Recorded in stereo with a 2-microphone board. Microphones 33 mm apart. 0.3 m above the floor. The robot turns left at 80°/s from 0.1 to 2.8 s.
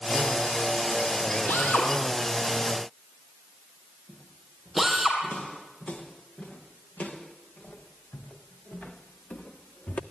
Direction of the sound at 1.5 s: 75° left (ahead or behind).